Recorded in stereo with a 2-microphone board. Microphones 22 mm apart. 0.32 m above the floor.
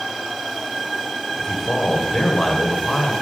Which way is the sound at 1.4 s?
25° left (ahead or behind).